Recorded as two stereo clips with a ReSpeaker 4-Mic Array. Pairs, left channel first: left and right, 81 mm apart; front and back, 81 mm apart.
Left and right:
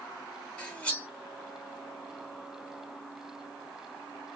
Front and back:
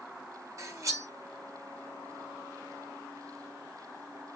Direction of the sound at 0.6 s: 160° left.